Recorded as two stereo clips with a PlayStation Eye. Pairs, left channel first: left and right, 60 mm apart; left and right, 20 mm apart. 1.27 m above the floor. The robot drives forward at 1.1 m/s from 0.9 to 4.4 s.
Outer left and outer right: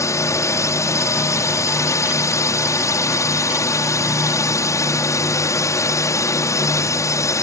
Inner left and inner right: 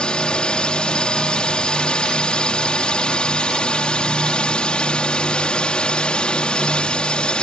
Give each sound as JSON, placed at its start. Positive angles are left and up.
{"t": 0.0, "sound": "a drone", "side_deg": 60}